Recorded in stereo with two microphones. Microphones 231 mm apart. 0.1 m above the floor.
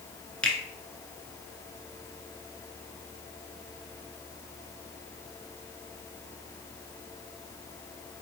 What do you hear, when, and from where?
0.4 s a finger snap: 5° left (ahead or behind), 0.9 m